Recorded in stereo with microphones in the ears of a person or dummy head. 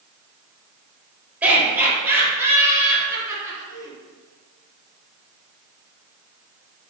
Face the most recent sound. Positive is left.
turn(degrees=-20)  # may be behind; listen again after turning